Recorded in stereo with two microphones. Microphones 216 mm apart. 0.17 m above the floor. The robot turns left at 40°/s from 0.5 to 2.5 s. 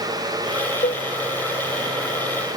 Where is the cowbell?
45° left (ahead or behind), 1.1 m; by 1.1 s 55° left (ahead or behind), 1.1 m.